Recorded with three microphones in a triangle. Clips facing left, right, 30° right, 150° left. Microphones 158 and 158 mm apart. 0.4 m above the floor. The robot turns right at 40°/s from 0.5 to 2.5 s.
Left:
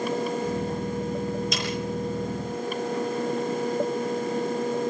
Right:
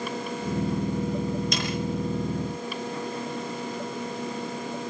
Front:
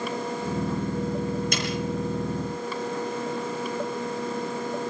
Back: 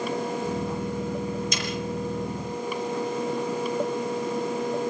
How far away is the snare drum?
About 7 m.